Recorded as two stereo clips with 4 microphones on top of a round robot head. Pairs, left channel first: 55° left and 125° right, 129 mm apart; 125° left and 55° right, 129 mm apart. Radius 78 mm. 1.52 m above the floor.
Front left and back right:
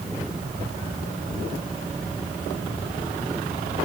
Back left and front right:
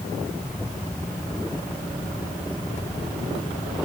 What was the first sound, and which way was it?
Only background noise.